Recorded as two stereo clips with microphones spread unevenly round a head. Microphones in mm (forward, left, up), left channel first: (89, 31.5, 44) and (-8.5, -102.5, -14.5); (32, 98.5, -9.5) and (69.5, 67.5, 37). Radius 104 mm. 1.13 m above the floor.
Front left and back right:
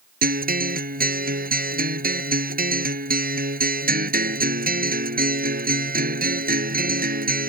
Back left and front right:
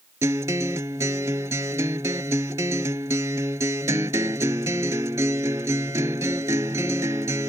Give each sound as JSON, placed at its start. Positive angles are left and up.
{"t": 0.2, "sound": "a guitar", "azimuth_deg": -90}